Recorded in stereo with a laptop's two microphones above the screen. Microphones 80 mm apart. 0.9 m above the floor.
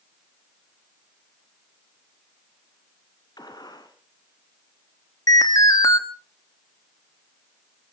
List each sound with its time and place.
3.4 s a gunshot: 60° left (ahead or behind), 2.5 m
5.3 s an alarm: 50° left (ahead or behind), 2.5 m